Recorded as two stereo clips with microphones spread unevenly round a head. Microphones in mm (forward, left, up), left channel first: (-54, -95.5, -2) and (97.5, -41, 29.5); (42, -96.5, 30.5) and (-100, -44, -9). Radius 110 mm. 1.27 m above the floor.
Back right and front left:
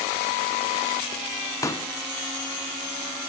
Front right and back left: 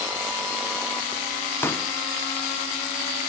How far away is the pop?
About 0.6 m.